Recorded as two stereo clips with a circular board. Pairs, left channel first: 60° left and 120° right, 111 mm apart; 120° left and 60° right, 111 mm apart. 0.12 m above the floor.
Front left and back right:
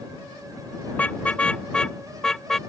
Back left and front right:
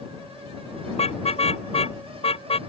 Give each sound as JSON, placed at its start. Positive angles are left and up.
{"t": 0.9, "sound": "a car horn", "azimuth_deg": 135}